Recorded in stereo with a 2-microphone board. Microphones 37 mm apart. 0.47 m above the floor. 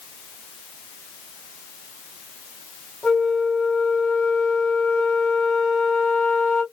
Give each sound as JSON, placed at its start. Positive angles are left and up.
{"t": 3.0, "sound": "a flute", "side_deg": 5, "distance_m": 2.0}